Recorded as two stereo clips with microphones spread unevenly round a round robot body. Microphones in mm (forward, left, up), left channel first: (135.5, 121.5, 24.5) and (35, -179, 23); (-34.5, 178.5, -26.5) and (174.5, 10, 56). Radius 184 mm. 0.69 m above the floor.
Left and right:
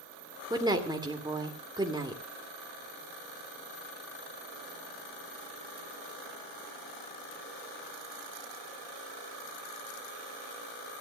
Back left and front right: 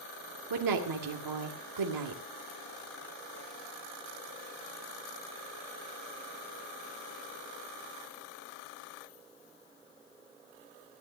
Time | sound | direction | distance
0.5 | a woman speaking | 30° right | 2.5 m